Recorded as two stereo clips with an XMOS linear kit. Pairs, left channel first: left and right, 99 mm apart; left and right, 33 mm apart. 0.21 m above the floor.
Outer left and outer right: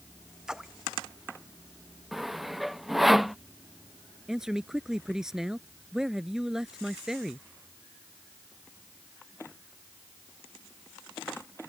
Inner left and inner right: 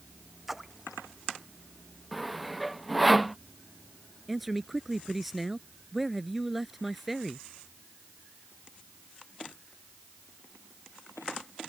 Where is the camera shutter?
I don't hear a camera shutter.